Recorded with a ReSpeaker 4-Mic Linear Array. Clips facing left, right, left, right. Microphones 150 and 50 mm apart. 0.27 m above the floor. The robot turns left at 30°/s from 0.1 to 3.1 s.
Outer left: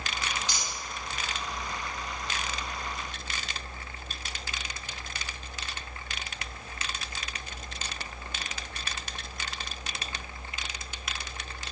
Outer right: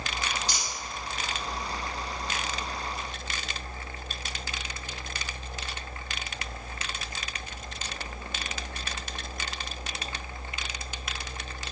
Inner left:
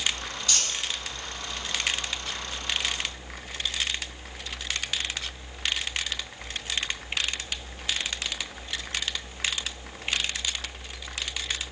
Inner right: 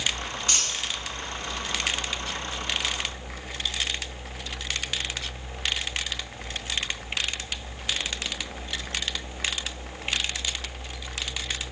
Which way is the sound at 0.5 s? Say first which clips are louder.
Outer right 1 dB, even; 35° right (ahead or behind).